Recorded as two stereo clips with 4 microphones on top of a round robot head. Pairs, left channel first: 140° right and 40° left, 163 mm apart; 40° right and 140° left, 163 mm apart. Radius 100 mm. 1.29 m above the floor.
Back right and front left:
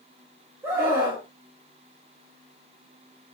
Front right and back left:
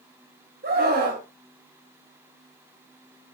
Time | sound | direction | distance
0.6 | a scream | 115° left | 4 m